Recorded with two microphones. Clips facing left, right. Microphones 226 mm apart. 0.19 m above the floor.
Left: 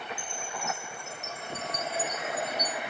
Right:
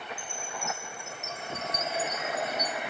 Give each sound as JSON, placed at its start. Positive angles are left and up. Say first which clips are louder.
{"t": 0.2, "sound": "a chime", "louder": "left 1 dB", "side_deg": 35}